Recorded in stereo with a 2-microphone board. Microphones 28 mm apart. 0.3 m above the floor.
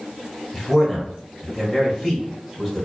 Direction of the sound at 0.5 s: 5° right (ahead or behind).